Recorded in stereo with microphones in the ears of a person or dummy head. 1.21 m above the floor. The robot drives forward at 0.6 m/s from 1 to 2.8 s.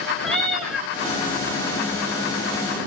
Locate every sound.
0.2 s a cat meowing: 5° left (ahead or behind), 1.7 m